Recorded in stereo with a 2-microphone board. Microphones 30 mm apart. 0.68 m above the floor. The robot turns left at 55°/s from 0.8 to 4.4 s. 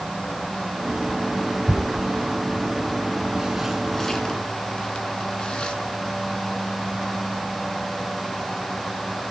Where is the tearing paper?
60° right (ahead or behind), 2 m; by 5.8 s 35° left (ahead or behind), 2 m.